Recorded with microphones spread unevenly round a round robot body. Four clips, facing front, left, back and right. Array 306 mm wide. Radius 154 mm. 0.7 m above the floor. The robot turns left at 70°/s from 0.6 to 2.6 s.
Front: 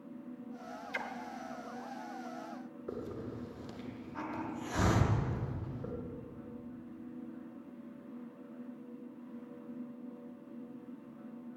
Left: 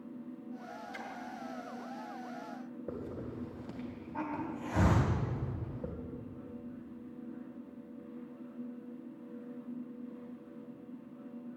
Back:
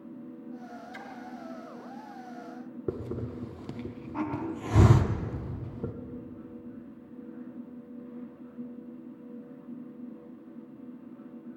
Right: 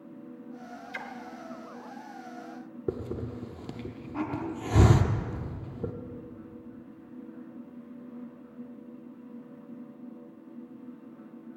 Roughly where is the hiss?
Behind right.